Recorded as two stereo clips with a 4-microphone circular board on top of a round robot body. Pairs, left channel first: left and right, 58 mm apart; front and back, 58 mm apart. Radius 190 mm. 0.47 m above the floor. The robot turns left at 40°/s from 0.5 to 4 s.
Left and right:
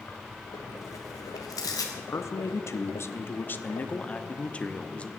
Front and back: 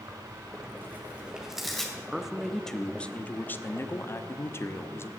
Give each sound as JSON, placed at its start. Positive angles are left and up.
{"t": 0.1, "sound": "tearing paper", "azimuth_deg": 135, "distance_m": 2.0}
{"t": 2.0, "sound": "a man speaking", "azimuth_deg": 110, "distance_m": 1.2}